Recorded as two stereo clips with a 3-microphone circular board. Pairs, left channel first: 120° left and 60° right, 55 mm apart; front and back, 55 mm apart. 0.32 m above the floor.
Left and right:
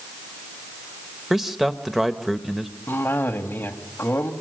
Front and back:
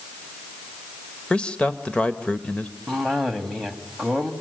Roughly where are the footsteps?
No footsteps in this recording.